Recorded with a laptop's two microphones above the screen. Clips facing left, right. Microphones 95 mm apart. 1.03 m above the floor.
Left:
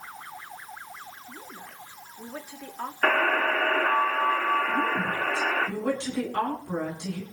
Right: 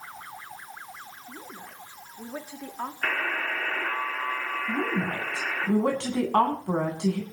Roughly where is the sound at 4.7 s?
Right.